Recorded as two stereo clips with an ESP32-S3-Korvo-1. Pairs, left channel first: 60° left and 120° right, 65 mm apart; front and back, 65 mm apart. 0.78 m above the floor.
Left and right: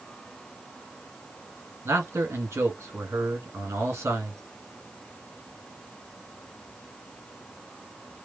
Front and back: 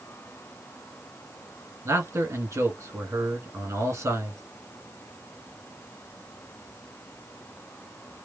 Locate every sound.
1.9 s a man speaking: 155° right, 1.5 m